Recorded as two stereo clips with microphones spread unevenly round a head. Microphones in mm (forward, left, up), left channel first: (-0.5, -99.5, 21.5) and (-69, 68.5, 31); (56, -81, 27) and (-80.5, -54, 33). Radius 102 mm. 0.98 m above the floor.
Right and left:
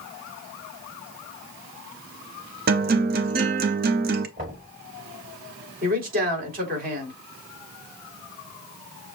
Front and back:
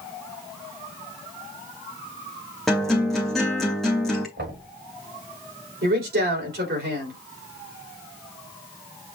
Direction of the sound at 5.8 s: 155° left.